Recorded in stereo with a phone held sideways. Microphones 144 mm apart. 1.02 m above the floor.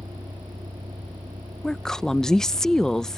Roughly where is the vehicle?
Right.